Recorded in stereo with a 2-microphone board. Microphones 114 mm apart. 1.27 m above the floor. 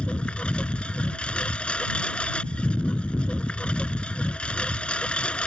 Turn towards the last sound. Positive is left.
turn(degrees=10)  # may be behind; listen again after turning